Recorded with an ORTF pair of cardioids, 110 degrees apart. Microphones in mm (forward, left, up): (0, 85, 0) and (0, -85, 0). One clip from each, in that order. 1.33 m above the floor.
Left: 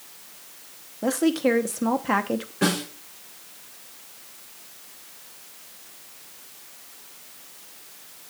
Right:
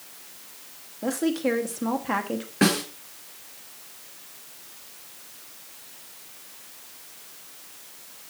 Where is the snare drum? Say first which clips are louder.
Right 2 dB; 65° right, 4.5 m.